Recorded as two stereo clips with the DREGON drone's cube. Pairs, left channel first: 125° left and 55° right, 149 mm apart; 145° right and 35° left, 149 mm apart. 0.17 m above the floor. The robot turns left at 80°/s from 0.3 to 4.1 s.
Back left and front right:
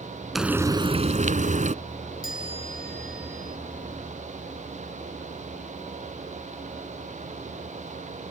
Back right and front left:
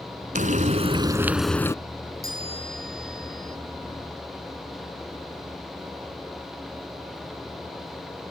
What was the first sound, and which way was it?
Frying, 35° left.